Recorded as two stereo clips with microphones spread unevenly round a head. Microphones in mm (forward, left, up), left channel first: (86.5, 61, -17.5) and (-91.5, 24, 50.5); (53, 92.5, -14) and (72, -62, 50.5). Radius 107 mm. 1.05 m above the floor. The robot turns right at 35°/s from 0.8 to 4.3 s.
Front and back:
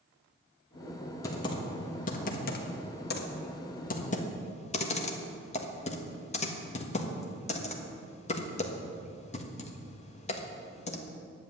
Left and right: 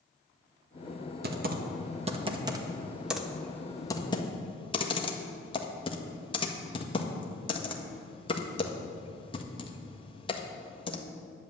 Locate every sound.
1.2 s typing on a keyboard: 55° right, 1.5 m; by 11.0 s 55° left, 1.5 m